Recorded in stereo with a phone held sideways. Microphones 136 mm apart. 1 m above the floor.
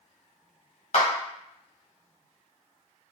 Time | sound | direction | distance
0.9 | a clap | 60° left (ahead or behind) | 0.9 m